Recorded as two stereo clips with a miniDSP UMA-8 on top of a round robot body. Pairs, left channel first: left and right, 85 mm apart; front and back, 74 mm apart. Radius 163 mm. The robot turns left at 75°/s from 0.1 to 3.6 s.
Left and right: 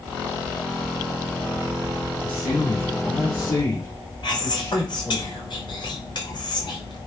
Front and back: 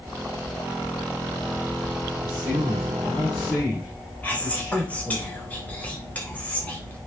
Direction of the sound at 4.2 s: 70° left.